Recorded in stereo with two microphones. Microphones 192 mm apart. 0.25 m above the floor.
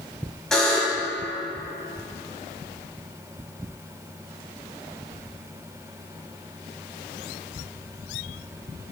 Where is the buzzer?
5° left (ahead or behind), 1.7 m.